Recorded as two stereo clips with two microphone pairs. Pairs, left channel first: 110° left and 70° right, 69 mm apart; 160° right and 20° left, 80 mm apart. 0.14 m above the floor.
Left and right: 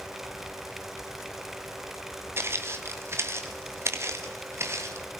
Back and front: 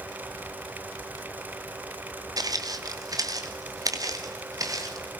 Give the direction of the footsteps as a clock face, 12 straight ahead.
1 o'clock.